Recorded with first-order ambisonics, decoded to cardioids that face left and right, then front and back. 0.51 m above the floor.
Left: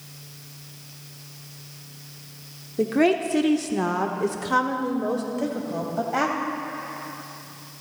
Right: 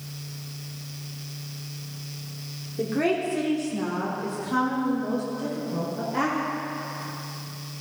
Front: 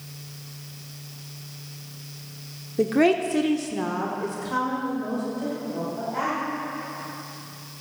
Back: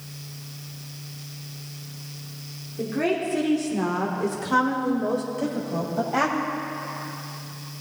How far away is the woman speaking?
About 1.0 m.